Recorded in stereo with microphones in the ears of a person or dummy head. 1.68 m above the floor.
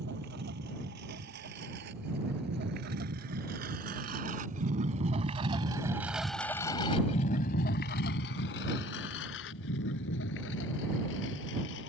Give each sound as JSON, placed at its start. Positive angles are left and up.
{"t": 0.0, "sound": "a lawn mower", "side_deg": -55}